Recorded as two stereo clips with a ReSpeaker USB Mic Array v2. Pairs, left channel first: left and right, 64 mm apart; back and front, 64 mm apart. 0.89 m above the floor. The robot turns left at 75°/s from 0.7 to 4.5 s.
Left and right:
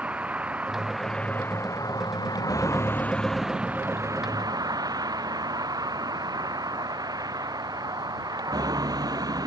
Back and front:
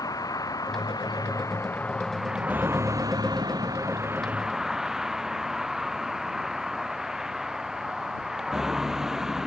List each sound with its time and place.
0.0 s a vehicle: 155° right; by 9.5 s 80° right